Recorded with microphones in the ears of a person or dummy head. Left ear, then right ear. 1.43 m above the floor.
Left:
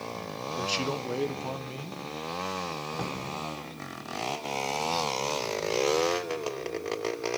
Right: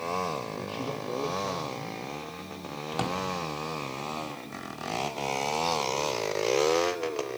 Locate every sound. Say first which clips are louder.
0.6 s a man speaking: left 5 dB; 75° left (ahead or behind), 0.9 m
2.9 s a drawer: right 4 dB; 45° right (ahead or behind), 2 m